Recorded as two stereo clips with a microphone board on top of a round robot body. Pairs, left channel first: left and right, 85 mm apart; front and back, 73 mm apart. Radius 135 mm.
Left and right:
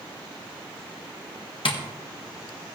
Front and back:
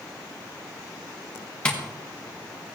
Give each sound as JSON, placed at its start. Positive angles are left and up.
{"t": 1.6, "sound": "tapping", "azimuth_deg": 75, "distance_m": 1.9}